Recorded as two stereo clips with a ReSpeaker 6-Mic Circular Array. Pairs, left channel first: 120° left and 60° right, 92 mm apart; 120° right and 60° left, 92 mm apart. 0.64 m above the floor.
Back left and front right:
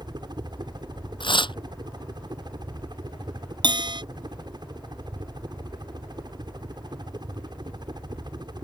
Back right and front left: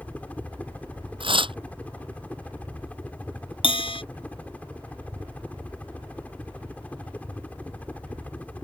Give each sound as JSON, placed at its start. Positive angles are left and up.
{"t": 0.0, "sound": "a helicopter", "azimuth_deg": -50}
{"t": 1.2, "sound": "tearing paper", "azimuth_deg": 85}
{"t": 3.6, "sound": "a bell", "azimuth_deg": -100}